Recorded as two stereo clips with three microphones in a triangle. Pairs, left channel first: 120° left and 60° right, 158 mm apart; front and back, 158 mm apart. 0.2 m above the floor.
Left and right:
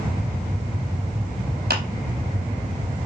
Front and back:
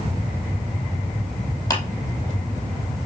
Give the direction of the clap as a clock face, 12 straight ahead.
2 o'clock.